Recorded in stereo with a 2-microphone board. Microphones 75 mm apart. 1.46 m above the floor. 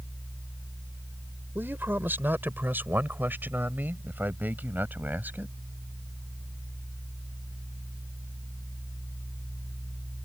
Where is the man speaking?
30° right (ahead or behind); by 5.5 s 25° right (ahead or behind).